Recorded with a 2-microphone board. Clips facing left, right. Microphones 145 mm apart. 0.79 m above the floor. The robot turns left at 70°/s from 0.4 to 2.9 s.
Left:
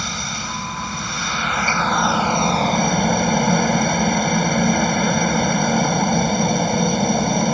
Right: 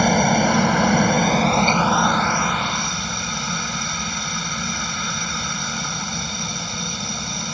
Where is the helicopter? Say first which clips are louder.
Right 14 dB; 65° right; by 7.5 s 120° left.